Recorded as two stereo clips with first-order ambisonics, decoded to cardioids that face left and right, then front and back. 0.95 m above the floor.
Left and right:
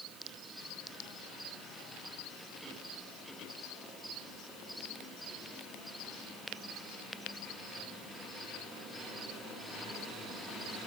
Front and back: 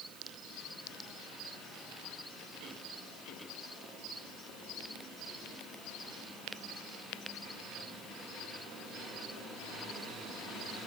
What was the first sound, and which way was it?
Only background noise.